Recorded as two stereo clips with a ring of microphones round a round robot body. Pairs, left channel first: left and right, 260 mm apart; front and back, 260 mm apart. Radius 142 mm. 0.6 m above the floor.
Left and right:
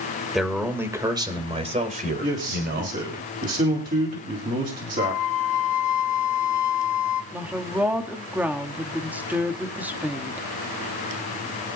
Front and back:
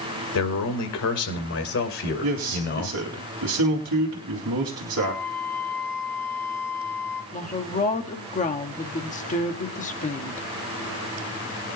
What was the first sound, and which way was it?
A man speaking, straight ahead.